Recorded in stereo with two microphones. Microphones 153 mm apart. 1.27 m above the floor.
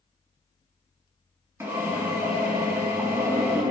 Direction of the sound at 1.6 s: 15° right (ahead or behind).